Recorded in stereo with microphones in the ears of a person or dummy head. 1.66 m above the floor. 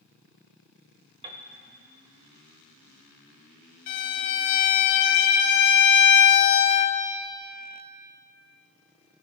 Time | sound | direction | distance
1.2 | a piano | 30° right (ahead or behind) | 0.9 m
3.9 | a violin | 40° left (ahead or behind) | 0.8 m